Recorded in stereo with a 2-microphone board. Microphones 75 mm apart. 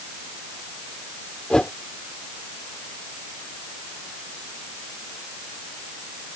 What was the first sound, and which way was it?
A whoosh, 10° left (ahead or behind).